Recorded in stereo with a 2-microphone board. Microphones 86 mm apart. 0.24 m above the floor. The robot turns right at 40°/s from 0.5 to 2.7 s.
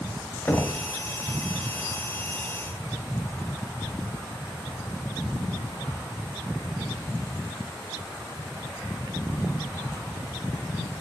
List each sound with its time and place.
0.5 s knocking: 25° left (ahead or behind), 1.2 m; by 0.8 s 30° left (ahead or behind), 1.2 m